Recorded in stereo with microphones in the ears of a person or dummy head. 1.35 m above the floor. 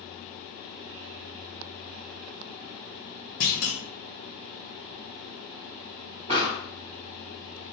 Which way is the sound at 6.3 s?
30° right (ahead or behind).